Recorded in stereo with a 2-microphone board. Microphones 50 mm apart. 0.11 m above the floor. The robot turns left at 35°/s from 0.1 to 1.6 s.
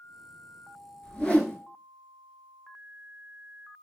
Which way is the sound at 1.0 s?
15° left (ahead or behind).